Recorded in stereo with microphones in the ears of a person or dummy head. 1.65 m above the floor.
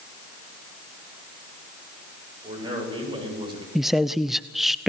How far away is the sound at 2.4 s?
About 8.5 m.